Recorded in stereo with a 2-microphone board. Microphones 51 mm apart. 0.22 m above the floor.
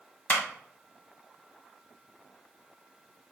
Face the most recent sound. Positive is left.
turn(degrees=30)  # may be behind; listen again after turning